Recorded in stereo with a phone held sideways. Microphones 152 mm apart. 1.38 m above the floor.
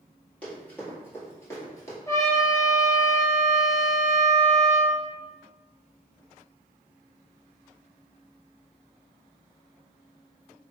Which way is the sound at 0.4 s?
10° left (ahead or behind).